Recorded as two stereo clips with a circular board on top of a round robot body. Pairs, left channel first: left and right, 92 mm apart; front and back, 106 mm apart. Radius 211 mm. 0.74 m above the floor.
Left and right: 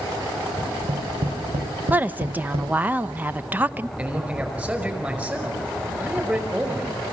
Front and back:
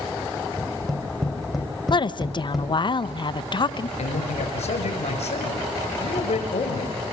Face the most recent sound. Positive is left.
turn(degrees=-15)